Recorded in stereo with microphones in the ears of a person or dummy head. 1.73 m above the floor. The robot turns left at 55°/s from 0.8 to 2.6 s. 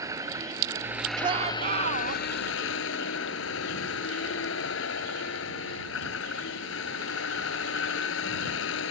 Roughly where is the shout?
Ahead.